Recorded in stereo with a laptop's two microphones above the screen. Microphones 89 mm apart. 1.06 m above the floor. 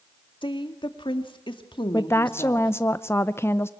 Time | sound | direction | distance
0.4 | a woman speaking | 65° left (ahead or behind) | 1.9 m
1.9 | a woman speaking | 25° left (ahead or behind) | 0.6 m